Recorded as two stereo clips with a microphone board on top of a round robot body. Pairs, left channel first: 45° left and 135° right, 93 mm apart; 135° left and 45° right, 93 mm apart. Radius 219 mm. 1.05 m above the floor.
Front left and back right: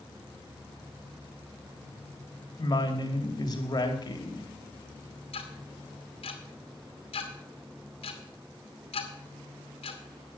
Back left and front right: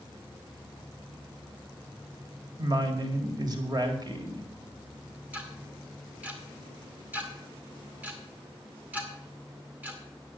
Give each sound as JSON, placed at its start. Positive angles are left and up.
{"t": 2.6, "sound": "a woman speaking", "azimuth_deg": 0, "distance_m": 2.0}
{"t": 5.3, "sound": "ticking", "azimuth_deg": 30, "distance_m": 1.1}